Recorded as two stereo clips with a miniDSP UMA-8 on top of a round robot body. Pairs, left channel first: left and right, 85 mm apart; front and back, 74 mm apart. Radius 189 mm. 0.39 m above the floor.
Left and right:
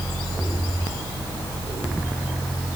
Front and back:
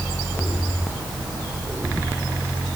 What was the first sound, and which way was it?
Only background noise.